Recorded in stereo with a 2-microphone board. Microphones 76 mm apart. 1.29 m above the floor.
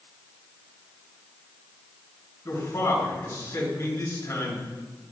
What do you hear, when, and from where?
2.5 s a man speaking: 50° left (ahead or behind), 3 m